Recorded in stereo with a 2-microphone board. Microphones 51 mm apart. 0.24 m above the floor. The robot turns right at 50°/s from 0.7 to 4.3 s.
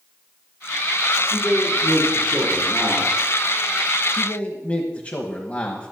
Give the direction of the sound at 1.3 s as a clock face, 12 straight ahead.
12 o'clock.